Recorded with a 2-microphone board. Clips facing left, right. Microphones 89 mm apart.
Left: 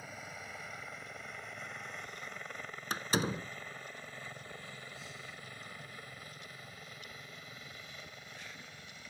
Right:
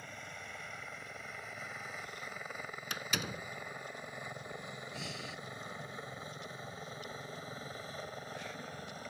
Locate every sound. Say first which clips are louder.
0.0 s a helicopter: left 1 dB; 5° left (ahead or behind); by 9.1 s 40° right (ahead or behind)
2.9 s a door slam: left 7 dB; 35° left (ahead or behind)
4.9 s breathing: right 5 dB; 75° right (ahead or behind)